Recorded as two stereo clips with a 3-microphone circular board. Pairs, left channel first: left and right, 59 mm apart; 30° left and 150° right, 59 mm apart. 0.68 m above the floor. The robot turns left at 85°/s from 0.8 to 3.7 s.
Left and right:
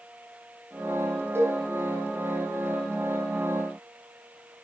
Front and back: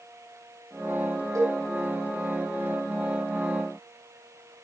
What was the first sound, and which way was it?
A cowbell, 135° right.